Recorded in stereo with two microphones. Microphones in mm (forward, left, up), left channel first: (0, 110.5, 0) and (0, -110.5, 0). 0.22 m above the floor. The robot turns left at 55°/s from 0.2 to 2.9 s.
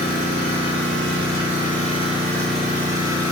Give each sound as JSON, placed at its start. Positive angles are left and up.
{"t": 0.0, "sound": "an engine running", "azimuth_deg": 130, "distance_m": 1.3}